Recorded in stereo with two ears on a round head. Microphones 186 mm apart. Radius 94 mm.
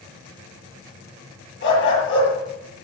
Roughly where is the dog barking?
Left.